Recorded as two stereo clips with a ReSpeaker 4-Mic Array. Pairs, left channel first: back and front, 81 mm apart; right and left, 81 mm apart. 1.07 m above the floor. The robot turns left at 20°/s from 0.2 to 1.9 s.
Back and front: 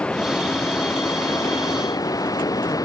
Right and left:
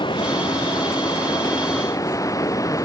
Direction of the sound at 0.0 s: 105° right.